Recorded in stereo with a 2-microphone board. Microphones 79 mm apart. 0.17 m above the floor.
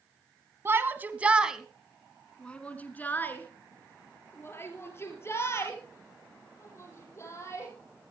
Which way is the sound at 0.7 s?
30° right (ahead or behind).